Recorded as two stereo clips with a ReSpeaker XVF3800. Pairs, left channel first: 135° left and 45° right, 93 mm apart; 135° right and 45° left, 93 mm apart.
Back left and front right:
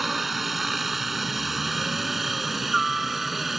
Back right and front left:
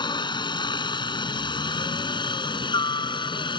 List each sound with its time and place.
0.0 s a helicopter: 135° right